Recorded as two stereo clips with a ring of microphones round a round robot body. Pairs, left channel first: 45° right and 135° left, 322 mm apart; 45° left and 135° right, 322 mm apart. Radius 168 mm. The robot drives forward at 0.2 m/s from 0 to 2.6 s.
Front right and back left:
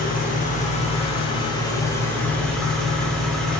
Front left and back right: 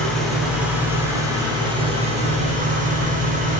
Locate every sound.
0.0 s an engine running: 40° right, 0.9 m; by 3.6 s 130° right, 0.9 m